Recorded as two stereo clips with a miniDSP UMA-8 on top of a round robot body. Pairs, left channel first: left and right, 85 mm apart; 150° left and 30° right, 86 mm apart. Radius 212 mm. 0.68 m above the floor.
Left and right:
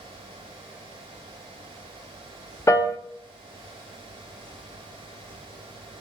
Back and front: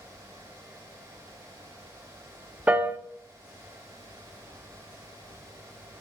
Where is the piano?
40° left, 0.6 m.